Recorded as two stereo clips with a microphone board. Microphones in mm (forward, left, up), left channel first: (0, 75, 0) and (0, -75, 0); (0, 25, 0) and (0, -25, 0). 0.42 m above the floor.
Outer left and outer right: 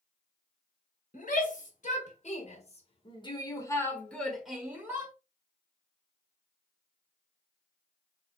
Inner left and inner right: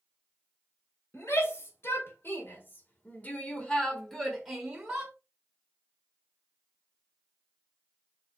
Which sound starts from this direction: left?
A shout, at 1.1 s.